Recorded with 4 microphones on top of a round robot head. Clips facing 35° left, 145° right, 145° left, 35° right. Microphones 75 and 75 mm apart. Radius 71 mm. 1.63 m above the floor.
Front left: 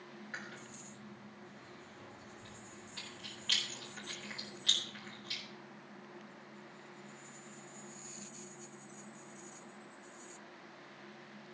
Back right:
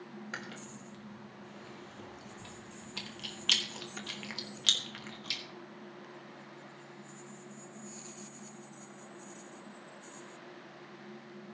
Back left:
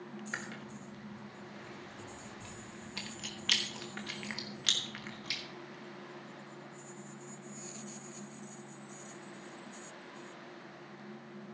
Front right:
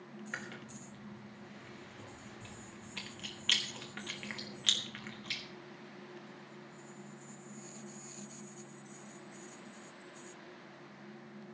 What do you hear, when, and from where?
0.3 s chewing: 135° right, 1.2 m